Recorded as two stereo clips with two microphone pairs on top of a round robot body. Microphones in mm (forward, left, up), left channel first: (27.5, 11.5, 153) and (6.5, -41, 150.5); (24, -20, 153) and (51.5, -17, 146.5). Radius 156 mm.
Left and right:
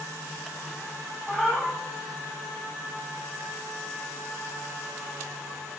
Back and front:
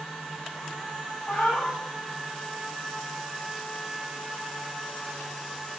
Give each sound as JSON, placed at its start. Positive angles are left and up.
{"t": 1.3, "sound": "a cat meowing", "azimuth_deg": 160, "distance_m": 0.6}